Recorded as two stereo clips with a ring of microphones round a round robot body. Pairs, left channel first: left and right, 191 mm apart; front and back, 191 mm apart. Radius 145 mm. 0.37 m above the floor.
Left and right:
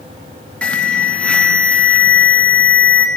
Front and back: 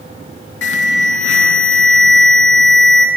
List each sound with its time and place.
0.6 s an alarm: 5° left, 1.7 m